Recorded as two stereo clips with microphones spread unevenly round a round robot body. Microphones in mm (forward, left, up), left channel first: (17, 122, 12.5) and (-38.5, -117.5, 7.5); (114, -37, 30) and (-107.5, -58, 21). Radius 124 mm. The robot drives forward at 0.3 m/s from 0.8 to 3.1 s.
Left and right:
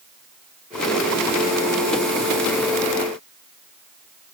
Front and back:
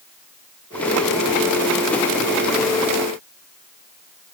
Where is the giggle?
No giggle in this recording.